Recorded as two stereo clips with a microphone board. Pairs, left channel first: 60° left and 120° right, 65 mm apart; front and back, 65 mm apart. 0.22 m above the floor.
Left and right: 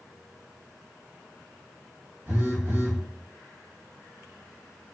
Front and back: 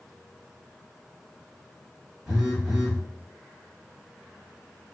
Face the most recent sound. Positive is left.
turn(degrees=-95)